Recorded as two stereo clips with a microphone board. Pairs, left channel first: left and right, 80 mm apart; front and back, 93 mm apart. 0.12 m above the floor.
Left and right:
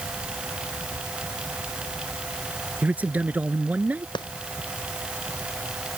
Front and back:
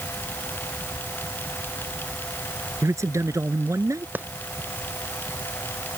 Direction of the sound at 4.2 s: 110° left.